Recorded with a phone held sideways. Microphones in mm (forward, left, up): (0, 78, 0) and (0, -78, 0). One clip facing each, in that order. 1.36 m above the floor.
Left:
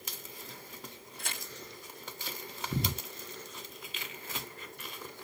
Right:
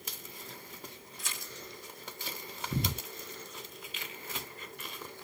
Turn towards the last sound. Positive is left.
turn(degrees=65)  # may be behind; listen again after turning